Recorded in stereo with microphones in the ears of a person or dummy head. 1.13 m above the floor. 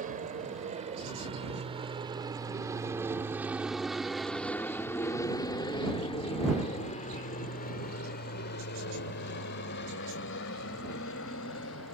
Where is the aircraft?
40° right (ahead or behind); by 11.9 s 70° left (ahead or behind).